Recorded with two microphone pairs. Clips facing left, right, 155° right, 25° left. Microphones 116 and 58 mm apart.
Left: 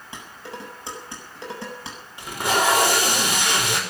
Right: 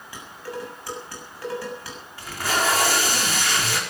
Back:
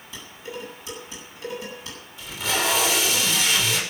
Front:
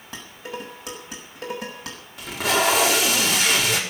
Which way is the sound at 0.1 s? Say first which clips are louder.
Right 3 dB, front 2 dB; 25° left.